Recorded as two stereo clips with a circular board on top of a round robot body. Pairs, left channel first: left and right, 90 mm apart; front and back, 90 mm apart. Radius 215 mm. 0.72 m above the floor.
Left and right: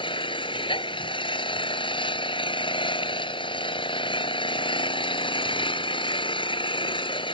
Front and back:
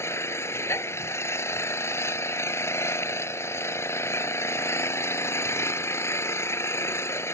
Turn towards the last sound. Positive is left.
turn(degrees=65)